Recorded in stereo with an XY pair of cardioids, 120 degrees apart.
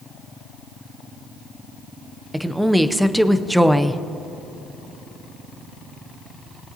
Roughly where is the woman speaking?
Ahead.